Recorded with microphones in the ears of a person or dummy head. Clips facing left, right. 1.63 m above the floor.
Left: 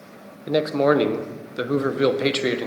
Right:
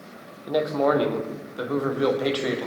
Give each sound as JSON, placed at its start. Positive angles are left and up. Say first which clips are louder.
{"t": 0.5, "sound": "a man speaking", "louder": "left 3 dB", "side_deg": 35, "distance_m": 0.9}